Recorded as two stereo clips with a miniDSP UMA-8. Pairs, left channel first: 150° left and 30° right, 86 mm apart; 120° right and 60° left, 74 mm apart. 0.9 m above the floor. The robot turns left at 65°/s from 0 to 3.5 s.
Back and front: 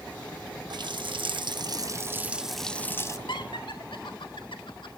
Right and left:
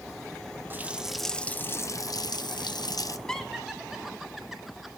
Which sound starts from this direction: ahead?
A running tap, at 0.7 s.